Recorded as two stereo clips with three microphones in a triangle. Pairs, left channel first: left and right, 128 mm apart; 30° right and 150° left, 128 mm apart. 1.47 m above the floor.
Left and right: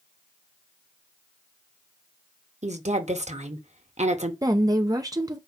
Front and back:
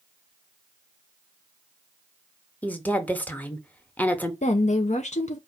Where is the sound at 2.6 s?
110° right, 0.9 m.